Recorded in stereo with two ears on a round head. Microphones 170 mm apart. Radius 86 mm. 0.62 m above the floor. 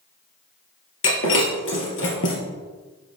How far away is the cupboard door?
No cupboard door in this recording.